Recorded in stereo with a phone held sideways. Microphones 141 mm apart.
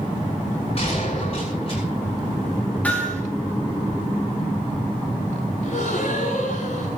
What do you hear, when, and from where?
0.8 s a gunshot: 45° left (ahead or behind), 8 m
2.8 s hammering: 10° left (ahead or behind), 5.5 m
5.6 s a gasp: 55° left (ahead or behind), 8.5 m